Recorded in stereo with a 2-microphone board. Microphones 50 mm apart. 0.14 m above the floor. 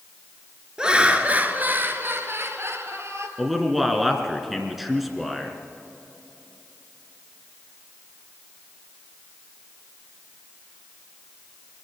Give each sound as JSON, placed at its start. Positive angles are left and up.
{"t": 0.8, "sound": "laughter", "side_deg": -15, "distance_m": 1.8}
{"t": 3.4, "sound": "a man speaking", "side_deg": -5, "distance_m": 2.0}